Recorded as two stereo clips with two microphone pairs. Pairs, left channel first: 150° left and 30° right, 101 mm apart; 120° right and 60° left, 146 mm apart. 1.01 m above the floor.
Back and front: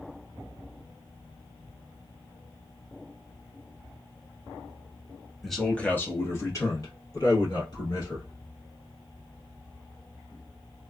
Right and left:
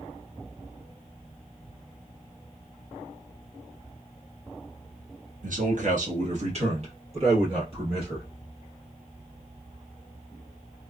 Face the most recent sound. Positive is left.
turn(degrees=110)